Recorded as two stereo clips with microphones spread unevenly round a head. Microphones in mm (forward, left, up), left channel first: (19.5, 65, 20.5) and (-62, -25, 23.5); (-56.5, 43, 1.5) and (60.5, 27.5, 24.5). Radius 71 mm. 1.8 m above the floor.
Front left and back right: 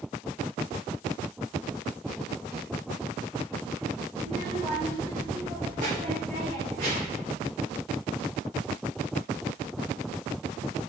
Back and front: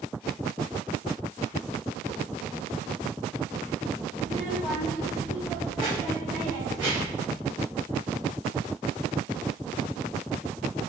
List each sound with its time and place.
4.2 s a child speaking: 85° right, 1.5 m; by 7.3 s 90° right, 5 m